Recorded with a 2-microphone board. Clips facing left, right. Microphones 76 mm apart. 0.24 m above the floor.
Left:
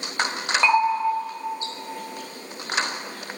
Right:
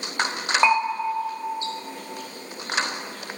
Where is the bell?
25° right (ahead or behind), 1.2 m.